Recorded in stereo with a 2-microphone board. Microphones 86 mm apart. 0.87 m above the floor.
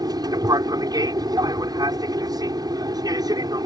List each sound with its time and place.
0.0 s an aircraft: 50° right (ahead or behind)